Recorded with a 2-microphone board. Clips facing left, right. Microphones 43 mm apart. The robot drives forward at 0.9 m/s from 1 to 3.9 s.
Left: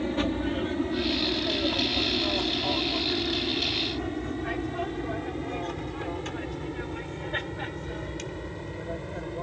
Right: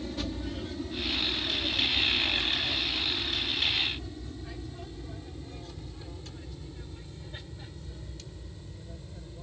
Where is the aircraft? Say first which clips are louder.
Left 8 dB; 35° left (ahead or behind); by 9.4 s 55° left (ahead or behind).